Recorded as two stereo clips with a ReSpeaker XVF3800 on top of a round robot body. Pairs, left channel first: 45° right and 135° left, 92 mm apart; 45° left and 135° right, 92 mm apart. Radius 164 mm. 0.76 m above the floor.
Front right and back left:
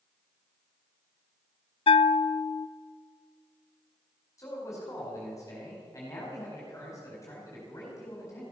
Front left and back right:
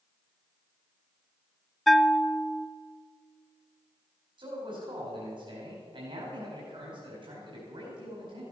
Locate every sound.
1.9 s a bell: 45° right, 0.5 m
4.4 s a man speaking: 100° right, 4.5 m